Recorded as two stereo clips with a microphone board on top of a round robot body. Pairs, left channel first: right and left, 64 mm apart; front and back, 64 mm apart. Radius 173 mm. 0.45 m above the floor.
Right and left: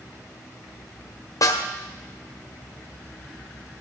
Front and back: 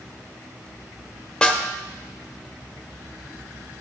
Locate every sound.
1.4 s a snare drum: 80° right, 1.5 m